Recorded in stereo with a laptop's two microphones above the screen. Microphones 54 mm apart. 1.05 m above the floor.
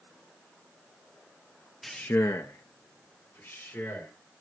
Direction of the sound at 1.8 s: 10° left (ahead or behind).